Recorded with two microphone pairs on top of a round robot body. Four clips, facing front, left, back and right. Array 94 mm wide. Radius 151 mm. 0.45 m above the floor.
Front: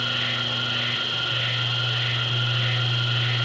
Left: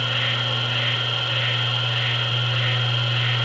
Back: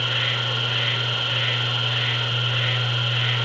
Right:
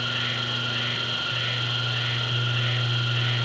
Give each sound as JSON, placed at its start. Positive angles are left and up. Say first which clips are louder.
{"t": 0.0, "sound": "an insect", "louder": "left 3 dB, back 2 dB", "azimuth_deg": 150, "distance_m": 4.5}